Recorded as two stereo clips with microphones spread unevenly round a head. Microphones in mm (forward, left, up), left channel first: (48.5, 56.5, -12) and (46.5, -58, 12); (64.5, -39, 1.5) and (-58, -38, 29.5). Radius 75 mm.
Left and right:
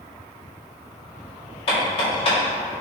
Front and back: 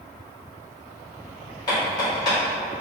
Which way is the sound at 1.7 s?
60° left.